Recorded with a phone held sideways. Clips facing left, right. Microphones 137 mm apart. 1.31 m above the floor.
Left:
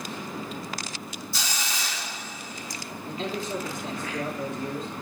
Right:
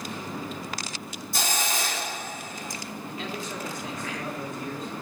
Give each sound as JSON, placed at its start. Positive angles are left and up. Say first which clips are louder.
{"t": 1.3, "sound": "a hiss", "louder": "right 7 dB", "side_deg": -50, "distance_m": 1.2}
{"t": 3.0, "sound": "a man speaking", "louder": "left 5 dB", "side_deg": 30, "distance_m": 3.5}